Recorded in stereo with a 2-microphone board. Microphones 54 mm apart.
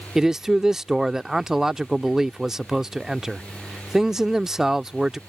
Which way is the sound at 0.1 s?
10° right (ahead or behind).